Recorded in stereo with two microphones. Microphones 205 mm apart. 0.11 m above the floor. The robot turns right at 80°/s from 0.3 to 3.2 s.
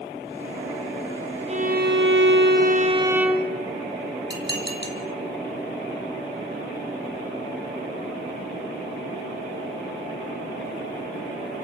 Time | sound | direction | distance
1.5 | a violin | 145° right | 3.5 m
4.3 | dishes clattering | 60° left (ahead or behind) | 3 m